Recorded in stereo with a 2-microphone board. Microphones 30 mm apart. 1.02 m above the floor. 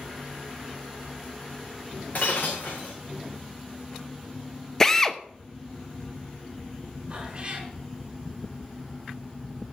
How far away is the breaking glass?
About 4.5 m.